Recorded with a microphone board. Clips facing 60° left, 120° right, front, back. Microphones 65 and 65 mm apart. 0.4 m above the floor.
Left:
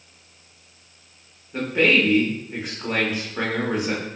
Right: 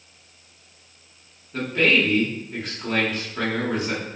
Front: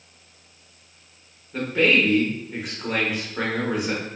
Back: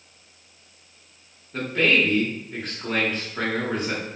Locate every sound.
1.5 s a man speaking: 60° left, 0.8 m